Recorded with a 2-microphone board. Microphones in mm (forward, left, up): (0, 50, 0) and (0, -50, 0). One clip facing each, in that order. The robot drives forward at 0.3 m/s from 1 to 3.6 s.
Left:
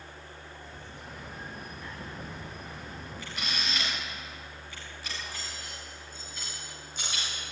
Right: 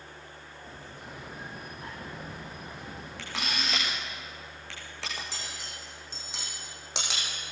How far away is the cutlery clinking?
About 5.5 m.